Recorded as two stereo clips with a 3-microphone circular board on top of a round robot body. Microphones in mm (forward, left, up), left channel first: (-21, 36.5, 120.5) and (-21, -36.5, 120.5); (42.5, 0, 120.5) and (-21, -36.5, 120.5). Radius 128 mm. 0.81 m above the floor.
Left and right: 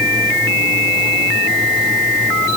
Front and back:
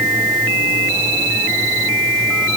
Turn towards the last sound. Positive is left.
No sound to turn to.